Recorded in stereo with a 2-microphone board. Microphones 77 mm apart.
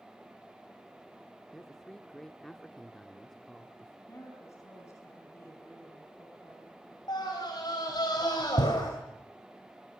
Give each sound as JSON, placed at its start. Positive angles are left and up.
{"t": 1.5, "sound": "a man speaking", "side_deg": 5, "distance_m": 0.9}
{"t": 4.1, "sound": "a woman speaking", "side_deg": 40, "distance_m": 4.5}
{"t": 7.1, "sound": "a scream", "side_deg": 65, "distance_m": 3.0}